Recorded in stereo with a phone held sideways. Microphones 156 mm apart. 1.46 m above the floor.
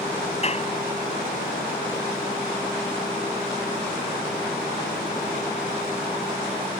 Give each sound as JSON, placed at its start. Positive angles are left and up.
{"t": 0.4, "sound": "a clap", "side_deg": 40}